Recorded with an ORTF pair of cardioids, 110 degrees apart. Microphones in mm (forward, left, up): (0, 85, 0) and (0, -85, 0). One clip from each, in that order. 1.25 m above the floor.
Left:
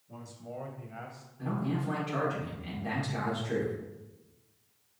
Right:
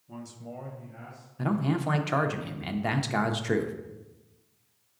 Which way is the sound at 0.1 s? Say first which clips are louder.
Right 1 dB; 50° right.